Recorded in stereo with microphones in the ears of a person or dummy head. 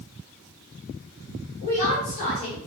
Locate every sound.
1.6 s a woman speaking: 55° left (ahead or behind), 1.2 m